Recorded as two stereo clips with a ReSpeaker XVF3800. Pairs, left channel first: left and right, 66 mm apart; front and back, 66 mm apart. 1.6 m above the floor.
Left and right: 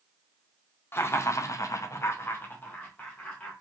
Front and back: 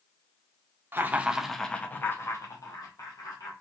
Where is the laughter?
130° left, 0.5 m; by 3.5 s 20° left, 1.1 m.